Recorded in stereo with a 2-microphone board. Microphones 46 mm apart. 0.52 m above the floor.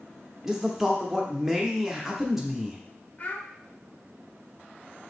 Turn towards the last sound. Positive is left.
turn(degrees=35)  # may be behind; listen again after turning